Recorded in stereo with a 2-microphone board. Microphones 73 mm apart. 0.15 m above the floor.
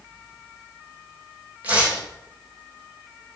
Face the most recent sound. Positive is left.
turn(degrees=-20)  # may be behind; listen again after turning